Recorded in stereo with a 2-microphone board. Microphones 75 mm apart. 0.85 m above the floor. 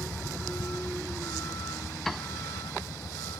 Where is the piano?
5° left (ahead or behind).